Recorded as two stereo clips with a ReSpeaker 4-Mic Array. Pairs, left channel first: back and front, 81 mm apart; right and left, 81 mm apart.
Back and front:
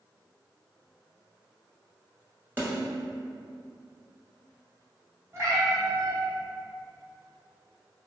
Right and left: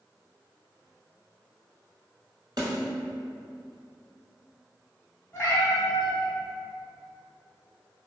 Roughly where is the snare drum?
Ahead left.